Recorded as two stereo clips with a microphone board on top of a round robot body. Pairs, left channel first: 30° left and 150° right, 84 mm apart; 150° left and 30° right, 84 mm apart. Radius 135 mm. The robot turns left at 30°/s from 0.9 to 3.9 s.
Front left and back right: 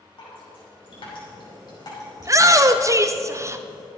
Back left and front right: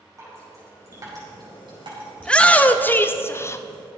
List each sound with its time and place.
0.2 s dripping: 20° left, 5 m; by 2.8 s 35° right, 5 m
2.2 s a shout: 135° right, 1.1 m; by 3.6 s straight behind, 1.1 m